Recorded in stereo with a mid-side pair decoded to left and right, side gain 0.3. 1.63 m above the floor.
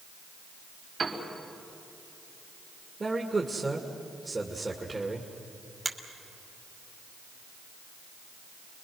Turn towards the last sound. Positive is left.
turn(degrees=-40)